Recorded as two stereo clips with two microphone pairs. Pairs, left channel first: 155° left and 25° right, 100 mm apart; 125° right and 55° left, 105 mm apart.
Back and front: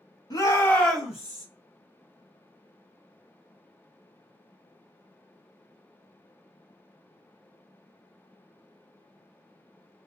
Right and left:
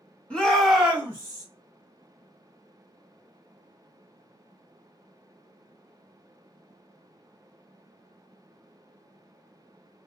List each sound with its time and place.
0.3 s a shout: 160° left, 1.2 m; by 1.4 s 20° left, 1.1 m